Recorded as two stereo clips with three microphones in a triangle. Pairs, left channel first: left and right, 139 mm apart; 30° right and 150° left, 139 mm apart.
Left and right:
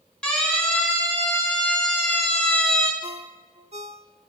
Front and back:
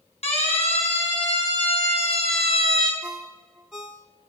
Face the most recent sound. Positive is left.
turn(degrees=-125)